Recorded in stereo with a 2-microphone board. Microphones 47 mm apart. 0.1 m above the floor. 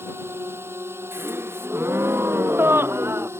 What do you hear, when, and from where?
0.0 s a drone: 60° right (ahead or behind); by 3.4 s 65° right (ahead or behind)
1.1 s a gasp: 60° right (ahead or behind)